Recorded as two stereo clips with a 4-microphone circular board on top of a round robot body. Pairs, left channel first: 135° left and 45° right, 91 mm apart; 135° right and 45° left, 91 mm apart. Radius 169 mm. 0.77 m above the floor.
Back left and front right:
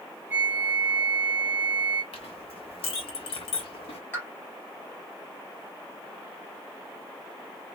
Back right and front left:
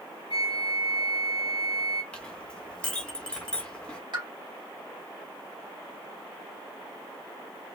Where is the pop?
70° left, 2.0 m.